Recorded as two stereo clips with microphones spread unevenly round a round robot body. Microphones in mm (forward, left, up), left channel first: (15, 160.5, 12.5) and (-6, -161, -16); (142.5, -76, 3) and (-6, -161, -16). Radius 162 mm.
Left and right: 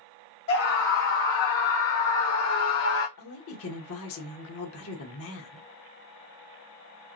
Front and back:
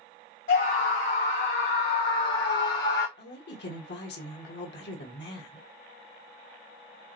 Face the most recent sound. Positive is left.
turn(degrees=40)